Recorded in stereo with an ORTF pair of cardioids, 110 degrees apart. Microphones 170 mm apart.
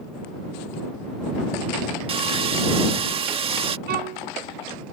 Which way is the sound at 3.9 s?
65° right.